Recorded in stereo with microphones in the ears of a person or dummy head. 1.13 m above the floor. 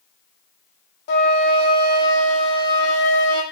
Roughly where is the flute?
Left.